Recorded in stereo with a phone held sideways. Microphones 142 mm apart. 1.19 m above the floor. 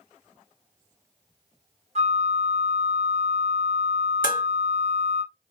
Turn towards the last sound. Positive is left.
turn(degrees=75)  # may be behind; listen again after turning